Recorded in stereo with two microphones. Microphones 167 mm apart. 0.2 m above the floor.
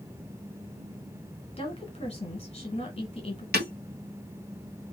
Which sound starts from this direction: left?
A woman speaking, at 1.6 s.